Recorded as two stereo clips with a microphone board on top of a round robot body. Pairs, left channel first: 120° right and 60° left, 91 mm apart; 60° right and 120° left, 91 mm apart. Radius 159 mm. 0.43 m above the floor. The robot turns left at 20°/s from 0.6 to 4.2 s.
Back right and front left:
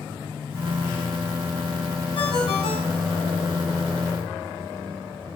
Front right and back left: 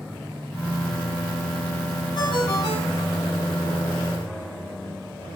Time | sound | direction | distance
2.1 | a ringtone | 90° right | 3 m